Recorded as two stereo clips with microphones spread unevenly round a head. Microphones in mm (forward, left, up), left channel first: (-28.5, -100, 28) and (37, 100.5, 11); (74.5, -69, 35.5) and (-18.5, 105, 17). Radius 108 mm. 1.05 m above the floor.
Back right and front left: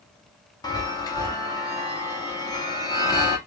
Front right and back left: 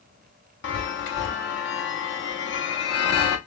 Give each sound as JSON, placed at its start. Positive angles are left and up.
{"t": 0.6, "sound": "a chime", "azimuth_deg": -35, "distance_m": 0.8}